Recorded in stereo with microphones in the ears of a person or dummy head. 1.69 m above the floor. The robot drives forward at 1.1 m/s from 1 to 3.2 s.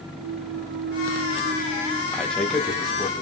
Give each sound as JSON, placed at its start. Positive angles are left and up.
{"t": 0.2, "sound": "a clunk", "side_deg": -60, "distance_m": 0.5}
{"t": 2.1, "sound": "a man speaking", "side_deg": 5, "distance_m": 2.0}